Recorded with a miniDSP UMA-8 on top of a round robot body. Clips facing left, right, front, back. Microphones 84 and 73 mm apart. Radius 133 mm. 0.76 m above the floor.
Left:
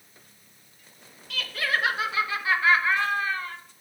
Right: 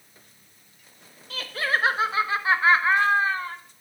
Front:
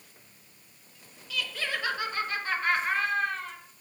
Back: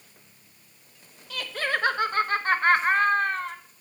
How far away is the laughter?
About 1.2 m.